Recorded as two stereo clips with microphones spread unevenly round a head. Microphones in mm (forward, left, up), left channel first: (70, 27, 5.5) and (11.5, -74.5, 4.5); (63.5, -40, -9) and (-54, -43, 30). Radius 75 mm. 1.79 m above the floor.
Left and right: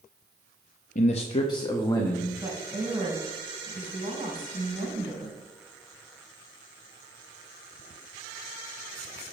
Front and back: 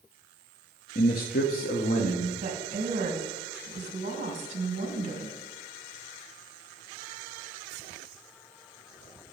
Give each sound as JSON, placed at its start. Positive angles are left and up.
{"t": 0.9, "sound": "a man speaking", "azimuth_deg": 40, "distance_m": 0.6}
{"t": 2.4, "sound": "a woman speaking", "azimuth_deg": 170, "distance_m": 2.0}